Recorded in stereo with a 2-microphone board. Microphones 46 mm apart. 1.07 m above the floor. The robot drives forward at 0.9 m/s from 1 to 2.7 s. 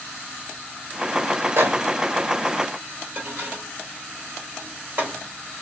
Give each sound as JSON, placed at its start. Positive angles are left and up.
{"t": 1.6, "sound": "a microwave", "side_deg": -60, "distance_m": 1.3}